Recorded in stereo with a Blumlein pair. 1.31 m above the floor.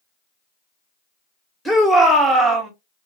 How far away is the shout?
About 1.5 m.